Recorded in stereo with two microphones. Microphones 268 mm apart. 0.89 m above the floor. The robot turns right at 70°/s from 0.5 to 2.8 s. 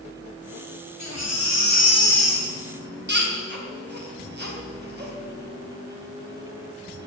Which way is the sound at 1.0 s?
85° left.